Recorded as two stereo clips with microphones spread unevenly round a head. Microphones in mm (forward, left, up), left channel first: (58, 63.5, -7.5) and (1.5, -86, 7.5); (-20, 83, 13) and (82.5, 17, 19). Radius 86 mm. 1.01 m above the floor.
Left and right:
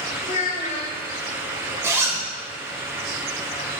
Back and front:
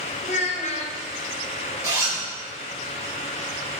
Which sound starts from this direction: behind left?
A child speaking, at 0.2 s.